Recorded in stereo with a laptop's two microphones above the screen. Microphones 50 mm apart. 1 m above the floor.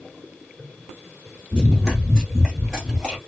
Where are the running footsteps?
15° left (ahead or behind), 1.0 m; by 3.2 s centre (ahead or behind), 1.5 m.